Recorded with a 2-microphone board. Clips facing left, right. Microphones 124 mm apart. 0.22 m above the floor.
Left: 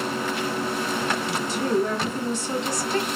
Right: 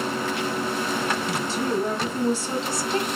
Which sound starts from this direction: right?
A woman speaking, at 1.3 s.